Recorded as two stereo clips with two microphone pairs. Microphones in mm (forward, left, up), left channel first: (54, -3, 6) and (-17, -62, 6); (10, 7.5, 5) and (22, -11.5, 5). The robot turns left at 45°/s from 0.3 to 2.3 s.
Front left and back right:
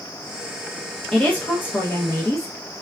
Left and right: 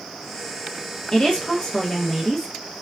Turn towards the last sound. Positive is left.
turn(degrees=65)